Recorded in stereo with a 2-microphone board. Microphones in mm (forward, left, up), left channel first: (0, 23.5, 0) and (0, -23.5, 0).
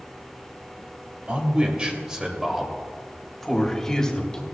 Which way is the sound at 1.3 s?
30° right (ahead or behind).